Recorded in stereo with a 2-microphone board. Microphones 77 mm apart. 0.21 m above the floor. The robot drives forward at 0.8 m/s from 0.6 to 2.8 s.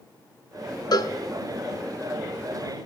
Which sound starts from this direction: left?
A cowbell, at 0.9 s.